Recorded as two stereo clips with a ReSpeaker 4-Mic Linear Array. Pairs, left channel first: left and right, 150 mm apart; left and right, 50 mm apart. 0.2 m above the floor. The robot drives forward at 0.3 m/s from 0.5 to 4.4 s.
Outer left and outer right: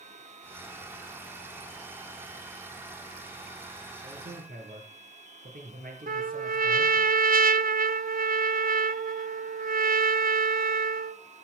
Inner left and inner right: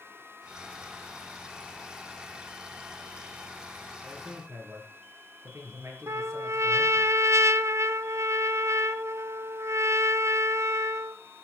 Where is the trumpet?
75° right (ahead or behind), 0.6 m.